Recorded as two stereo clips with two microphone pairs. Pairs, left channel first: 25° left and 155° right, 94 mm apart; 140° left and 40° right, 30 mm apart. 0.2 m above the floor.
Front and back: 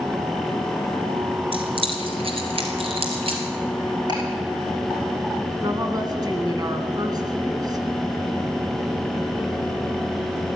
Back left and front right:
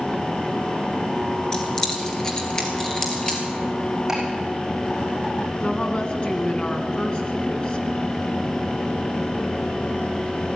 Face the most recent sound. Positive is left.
turn(degrees=-175)